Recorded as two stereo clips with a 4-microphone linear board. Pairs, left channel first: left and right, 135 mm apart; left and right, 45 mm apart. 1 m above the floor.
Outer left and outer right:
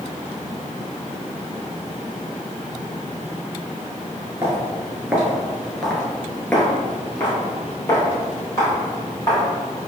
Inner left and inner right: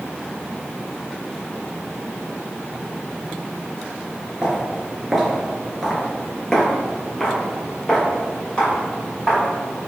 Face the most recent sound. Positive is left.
turn(degrees=25)  # may be behind; listen again after turning